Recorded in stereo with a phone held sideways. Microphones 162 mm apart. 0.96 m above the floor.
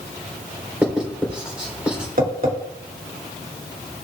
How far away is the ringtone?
I don't hear a ringtone.